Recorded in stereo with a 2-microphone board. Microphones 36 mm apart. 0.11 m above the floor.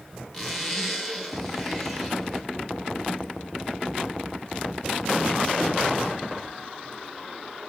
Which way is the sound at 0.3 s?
10° left (ahead or behind).